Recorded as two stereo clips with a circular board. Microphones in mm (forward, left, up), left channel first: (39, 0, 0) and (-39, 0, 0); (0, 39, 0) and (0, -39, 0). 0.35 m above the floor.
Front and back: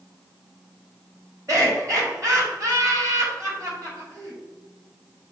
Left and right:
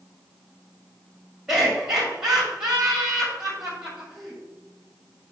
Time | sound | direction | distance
1.5 | laughter | 170° right | 2.0 m